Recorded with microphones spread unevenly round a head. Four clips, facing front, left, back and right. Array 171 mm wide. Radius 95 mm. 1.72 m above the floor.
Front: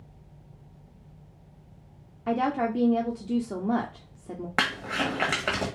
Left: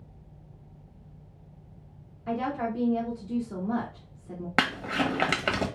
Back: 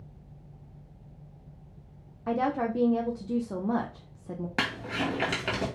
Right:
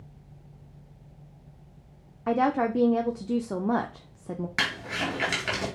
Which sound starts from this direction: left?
Crumpling, at 4.6 s.